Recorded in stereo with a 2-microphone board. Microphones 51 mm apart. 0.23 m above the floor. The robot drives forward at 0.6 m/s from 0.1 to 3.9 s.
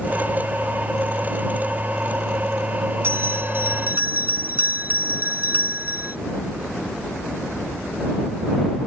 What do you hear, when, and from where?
3.0 s a bell: 50° right (ahead or behind); by 6.2 s 40° right (ahead or behind)